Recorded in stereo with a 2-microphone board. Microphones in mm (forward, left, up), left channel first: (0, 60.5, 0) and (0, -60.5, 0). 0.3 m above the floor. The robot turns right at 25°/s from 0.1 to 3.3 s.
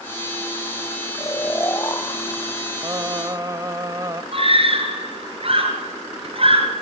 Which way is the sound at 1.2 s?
25° left (ahead or behind).